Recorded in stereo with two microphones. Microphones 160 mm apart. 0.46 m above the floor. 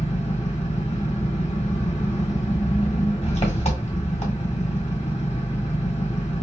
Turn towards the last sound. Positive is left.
turn(degrees=40)  # may be behind; listen again after turning